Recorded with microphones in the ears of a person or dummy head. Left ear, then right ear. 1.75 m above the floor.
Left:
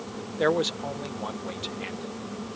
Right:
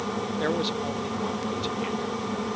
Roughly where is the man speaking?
Left.